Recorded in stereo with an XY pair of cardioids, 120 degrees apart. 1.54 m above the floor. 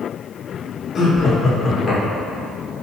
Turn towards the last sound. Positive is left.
turn(degrees=45)